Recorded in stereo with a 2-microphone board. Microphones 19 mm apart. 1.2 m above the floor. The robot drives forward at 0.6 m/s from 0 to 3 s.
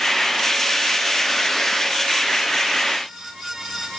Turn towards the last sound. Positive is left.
No sound to turn to.